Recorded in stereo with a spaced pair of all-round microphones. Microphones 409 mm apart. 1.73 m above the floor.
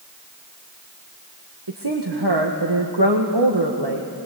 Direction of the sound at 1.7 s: 75° right (ahead or behind).